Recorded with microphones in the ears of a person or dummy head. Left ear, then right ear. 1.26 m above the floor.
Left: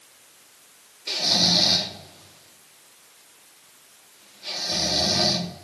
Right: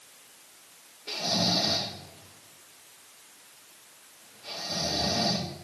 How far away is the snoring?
About 3 m.